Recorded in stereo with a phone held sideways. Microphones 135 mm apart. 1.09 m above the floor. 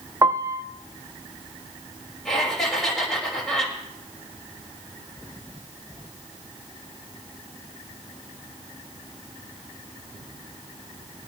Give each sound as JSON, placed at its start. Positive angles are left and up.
{"t": 0.2, "sound": "a piano", "side_deg": -20, "distance_m": 0.6}
{"t": 2.2, "sound": "laughter", "side_deg": 5, "distance_m": 5.5}